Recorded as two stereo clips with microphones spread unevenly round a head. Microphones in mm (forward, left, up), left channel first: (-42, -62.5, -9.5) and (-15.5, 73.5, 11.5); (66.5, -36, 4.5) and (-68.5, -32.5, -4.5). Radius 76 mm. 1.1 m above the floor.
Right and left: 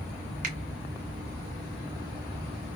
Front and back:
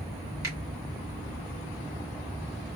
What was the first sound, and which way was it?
A finger snap, 115° left.